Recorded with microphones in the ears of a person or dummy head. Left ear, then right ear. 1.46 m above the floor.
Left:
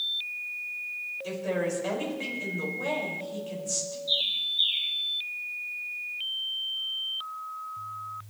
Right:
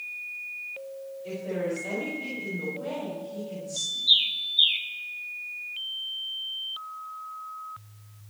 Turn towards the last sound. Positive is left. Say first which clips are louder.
# right 4 dB
turn(degrees=-65)  # may be behind; listen again after turning